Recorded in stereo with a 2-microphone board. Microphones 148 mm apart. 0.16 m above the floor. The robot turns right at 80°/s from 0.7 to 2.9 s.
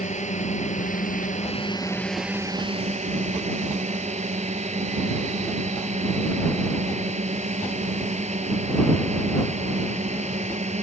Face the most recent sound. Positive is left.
turn(degrees=-120)